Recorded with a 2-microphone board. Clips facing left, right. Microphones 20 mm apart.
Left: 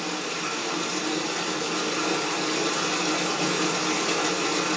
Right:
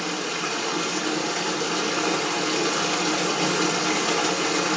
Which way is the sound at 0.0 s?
35° right (ahead or behind).